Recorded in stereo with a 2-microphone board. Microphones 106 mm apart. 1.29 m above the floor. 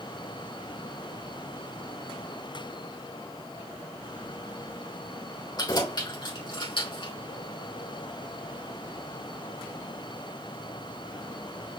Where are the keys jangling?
40° left (ahead or behind), 3.5 m; by 7.1 s 55° left (ahead or behind), 3 m.